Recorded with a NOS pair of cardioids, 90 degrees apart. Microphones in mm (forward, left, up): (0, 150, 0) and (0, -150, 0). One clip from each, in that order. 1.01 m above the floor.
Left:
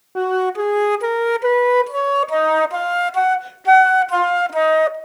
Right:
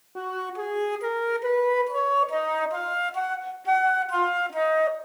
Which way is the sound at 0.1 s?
45° left.